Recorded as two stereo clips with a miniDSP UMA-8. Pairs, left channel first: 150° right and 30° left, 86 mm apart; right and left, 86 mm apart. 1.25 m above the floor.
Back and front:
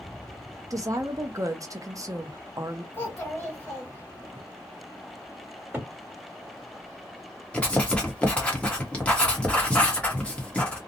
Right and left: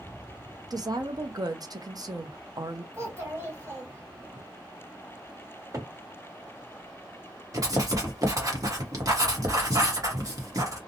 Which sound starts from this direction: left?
A cupboard door, at 5.7 s.